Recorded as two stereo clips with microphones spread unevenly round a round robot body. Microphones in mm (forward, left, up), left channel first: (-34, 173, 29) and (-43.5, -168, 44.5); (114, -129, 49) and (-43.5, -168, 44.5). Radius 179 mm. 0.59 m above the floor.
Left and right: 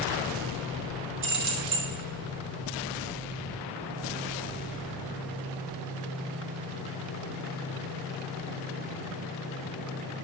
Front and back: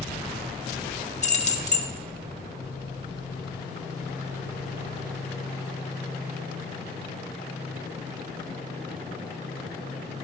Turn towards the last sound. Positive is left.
turn(degrees=-35)